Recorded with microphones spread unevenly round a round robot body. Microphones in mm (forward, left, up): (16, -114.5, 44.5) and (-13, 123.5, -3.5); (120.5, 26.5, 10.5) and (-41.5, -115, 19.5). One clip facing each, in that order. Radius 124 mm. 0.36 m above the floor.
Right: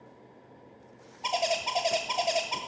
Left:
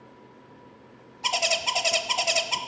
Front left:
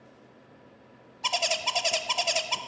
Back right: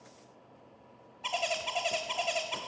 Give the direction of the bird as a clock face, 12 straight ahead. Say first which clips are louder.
Even, front left 3 dB; 11 o'clock.